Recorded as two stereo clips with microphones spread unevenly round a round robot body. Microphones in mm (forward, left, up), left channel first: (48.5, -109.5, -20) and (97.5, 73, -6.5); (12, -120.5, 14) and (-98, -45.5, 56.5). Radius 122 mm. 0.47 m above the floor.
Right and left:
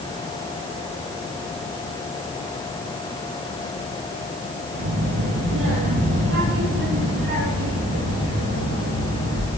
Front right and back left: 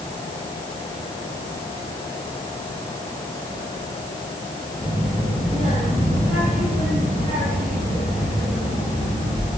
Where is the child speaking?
80° left, 8 m; by 9.5 s 90° left, 12.5 m.